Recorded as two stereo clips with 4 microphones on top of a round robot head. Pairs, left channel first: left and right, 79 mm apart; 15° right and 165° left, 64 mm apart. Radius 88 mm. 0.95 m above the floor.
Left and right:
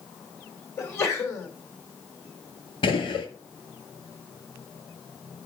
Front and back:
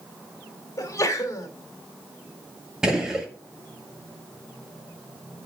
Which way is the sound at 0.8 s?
30° left.